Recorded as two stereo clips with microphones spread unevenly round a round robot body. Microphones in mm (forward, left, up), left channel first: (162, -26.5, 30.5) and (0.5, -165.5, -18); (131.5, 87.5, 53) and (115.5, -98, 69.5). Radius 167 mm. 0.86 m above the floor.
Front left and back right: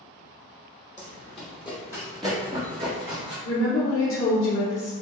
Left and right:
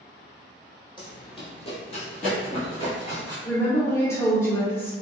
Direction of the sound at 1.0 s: 20° left.